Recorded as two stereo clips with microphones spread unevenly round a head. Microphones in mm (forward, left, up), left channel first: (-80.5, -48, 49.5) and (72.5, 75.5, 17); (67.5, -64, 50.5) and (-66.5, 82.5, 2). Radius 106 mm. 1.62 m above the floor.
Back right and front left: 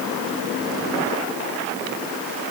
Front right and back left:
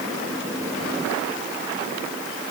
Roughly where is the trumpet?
No trumpet in this recording.